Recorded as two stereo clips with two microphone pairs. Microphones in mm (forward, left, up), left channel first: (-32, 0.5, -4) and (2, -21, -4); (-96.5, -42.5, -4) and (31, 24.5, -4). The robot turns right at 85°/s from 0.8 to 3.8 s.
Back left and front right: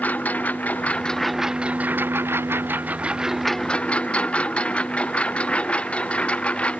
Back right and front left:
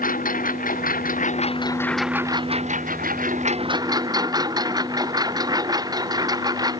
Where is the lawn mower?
165° right; by 6.8 s 90° left.